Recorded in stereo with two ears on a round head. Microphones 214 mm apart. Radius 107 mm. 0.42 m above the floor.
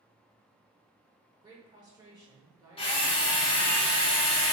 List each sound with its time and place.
1.4 s a woman speaking: 15° right (ahead or behind), 1.0 m
2.8 s a drill: 20° left (ahead or behind), 0.9 m